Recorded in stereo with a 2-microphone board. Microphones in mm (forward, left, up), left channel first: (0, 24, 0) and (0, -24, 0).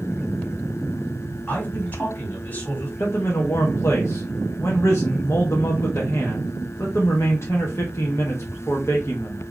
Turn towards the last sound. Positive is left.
turn(degrees=55)  # may be behind; listen again after turning